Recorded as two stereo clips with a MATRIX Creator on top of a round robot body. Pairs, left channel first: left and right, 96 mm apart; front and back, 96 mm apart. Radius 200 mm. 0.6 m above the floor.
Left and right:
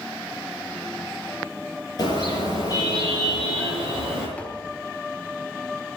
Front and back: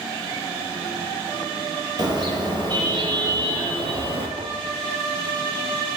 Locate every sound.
2.0 s a car horn: 140° left, 7 m; by 4.3 s 150° left, 6.5 m
4.4 s tapping: 165° left, 1.7 m